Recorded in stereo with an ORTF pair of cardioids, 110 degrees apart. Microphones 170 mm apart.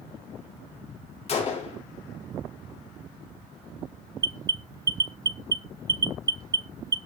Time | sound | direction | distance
1.3 | a gunshot | 40° left | 4.5 m
4.2 | an alarm | 20° right | 0.9 m